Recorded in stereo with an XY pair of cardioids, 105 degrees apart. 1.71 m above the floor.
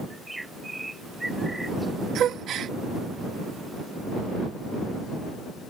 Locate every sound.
0.1 s a bird: 10° right
2.1 s a gasp: 65° right